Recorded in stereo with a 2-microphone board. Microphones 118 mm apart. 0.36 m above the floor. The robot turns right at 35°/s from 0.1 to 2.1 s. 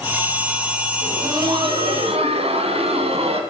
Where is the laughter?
155° right, 2.5 m; by 3.4 s 115° right, 2.5 m.